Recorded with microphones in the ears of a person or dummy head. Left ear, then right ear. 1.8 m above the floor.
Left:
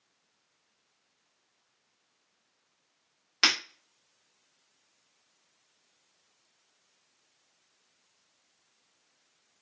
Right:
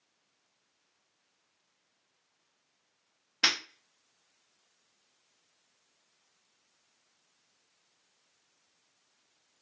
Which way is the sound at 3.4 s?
25° left (ahead or behind).